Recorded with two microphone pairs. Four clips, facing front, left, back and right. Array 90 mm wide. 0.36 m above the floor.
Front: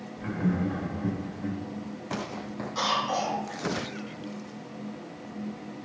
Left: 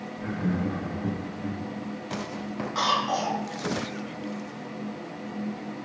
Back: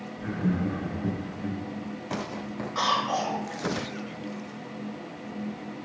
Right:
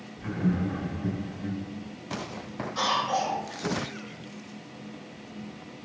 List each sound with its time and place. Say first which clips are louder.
0.2 s laughter: right 1 dB, even; 5° right, 1.1 m
2.8 s a cough: left 1 dB, back 2 dB; 120° left, 1.9 m